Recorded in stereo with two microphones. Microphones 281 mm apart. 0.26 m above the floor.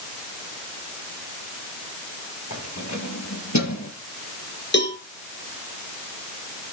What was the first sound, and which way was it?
Keys jangling, 80° left.